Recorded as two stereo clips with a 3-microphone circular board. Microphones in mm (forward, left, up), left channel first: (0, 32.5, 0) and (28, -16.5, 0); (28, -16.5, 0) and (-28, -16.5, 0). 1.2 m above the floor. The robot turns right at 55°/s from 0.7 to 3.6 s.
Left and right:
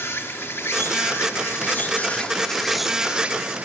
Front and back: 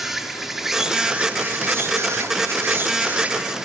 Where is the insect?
100° left, 0.9 m; by 3.6 s 100° right, 0.9 m.